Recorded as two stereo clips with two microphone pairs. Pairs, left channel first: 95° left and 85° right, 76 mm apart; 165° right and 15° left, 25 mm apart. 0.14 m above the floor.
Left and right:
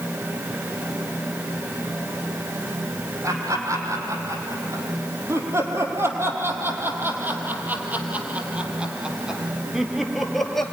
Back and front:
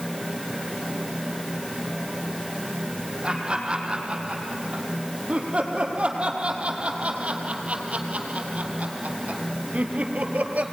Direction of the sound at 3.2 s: 40° right.